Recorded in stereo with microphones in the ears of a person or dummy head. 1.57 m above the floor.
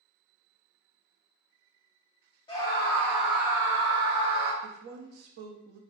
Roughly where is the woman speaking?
Right.